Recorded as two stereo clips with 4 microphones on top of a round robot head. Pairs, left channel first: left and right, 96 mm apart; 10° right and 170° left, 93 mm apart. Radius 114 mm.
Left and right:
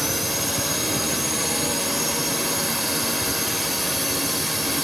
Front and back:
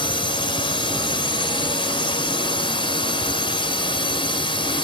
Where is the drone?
Straight ahead.